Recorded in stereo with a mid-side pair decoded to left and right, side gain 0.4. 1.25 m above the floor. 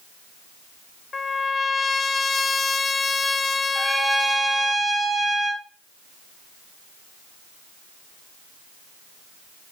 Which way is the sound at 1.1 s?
35° left.